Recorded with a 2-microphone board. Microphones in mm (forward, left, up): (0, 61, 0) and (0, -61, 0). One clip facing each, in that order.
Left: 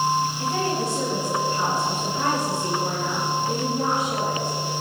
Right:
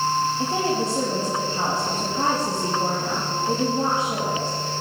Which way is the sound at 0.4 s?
30° right (ahead or behind).